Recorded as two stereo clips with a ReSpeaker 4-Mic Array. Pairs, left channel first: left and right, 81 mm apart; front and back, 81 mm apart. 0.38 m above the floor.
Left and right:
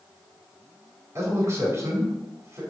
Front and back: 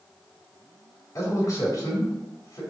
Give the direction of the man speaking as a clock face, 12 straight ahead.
1 o'clock.